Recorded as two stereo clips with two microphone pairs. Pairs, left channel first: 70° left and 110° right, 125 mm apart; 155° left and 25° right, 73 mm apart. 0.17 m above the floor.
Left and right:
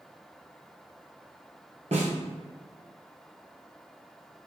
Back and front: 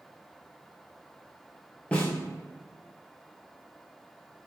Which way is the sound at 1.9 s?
135° right.